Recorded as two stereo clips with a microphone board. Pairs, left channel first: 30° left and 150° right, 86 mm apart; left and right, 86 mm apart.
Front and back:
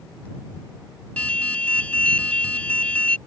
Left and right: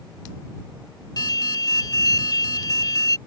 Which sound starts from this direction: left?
An alarm, at 1.2 s.